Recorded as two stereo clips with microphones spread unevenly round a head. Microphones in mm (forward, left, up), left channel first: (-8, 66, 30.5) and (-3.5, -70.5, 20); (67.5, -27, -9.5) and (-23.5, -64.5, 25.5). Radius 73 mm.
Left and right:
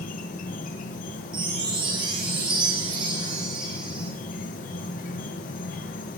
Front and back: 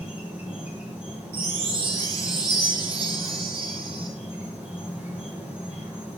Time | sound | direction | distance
0.0 | an insect | 120° left | 1.7 m
1.3 | a chime | 150° right | 4 m